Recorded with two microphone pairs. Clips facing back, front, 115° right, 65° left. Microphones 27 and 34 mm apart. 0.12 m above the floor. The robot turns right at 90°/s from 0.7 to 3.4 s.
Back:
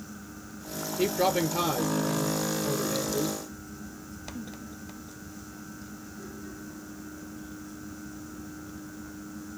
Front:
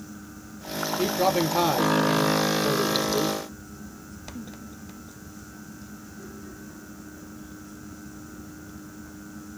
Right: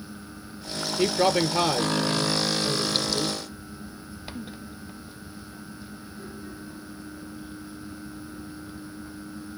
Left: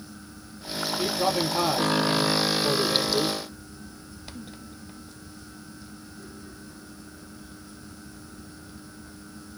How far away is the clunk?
No clunk in this recording.